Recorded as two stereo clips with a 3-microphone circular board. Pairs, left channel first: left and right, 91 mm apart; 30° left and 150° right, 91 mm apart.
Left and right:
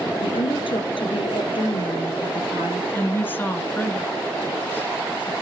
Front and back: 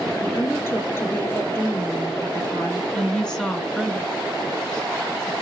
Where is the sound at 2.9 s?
100° left, 1.5 m.